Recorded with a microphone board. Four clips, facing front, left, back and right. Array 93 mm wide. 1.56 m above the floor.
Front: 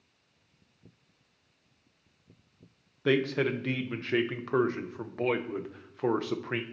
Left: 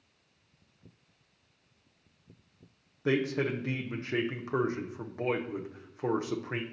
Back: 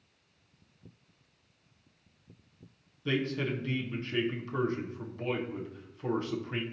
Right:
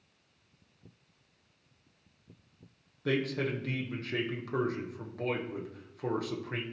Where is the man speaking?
20° left, 0.8 m.